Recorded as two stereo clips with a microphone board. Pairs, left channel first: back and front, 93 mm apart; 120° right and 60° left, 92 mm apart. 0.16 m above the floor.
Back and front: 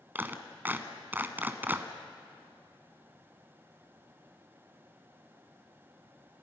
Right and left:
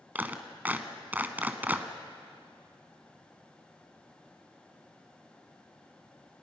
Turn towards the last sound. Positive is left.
turn(degrees=25)